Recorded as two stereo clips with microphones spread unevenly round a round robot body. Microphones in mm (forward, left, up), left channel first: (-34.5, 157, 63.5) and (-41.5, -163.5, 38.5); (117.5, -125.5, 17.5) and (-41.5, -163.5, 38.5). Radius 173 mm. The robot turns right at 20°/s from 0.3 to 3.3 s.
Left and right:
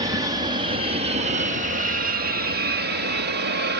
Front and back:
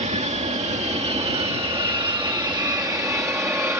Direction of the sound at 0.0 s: 155° right.